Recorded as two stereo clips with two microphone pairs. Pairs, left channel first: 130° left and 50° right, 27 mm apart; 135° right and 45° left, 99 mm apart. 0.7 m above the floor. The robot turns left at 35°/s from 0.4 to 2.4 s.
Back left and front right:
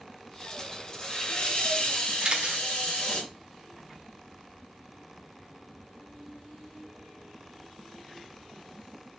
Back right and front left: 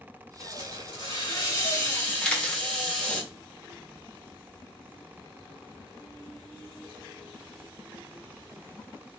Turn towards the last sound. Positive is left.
turn(degrees=-70)